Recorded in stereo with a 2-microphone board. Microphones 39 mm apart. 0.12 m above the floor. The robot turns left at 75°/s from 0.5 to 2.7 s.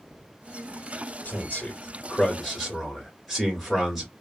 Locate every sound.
1.2 s a man speaking: 105° left, 1.6 m; by 4.1 s 5° right, 1.6 m